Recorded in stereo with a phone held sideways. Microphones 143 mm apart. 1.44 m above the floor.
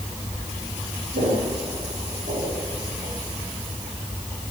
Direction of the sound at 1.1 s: 80° right.